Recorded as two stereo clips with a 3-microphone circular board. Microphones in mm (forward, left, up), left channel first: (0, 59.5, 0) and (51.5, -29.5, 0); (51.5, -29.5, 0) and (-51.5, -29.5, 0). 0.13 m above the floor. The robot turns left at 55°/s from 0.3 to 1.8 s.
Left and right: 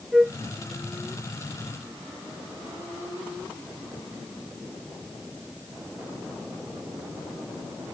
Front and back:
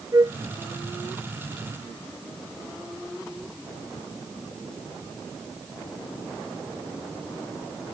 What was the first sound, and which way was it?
A flute, 140° right.